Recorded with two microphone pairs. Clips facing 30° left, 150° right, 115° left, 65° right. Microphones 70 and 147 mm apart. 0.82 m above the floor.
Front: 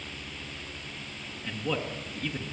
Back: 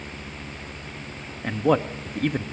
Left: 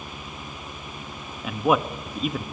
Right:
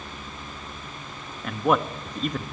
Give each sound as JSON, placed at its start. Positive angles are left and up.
{"t": 1.4, "sound": "a man speaking", "azimuth_deg": -165, "distance_m": 1.0}